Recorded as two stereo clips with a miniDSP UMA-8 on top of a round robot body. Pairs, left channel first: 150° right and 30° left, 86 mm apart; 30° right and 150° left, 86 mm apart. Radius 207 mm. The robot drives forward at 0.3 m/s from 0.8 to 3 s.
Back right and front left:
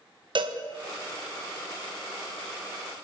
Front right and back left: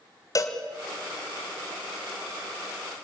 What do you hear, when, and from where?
0.3 s a cowbell: 20° left, 1.8 m